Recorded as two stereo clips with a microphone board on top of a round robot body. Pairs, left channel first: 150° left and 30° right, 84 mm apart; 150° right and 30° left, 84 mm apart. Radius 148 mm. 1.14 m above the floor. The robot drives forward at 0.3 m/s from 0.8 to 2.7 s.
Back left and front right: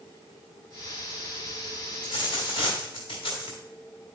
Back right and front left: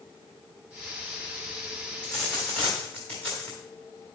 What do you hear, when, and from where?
2.0 s a dropped coin: 130° left, 1.6 m; by 3.6 s 135° left, 1.7 m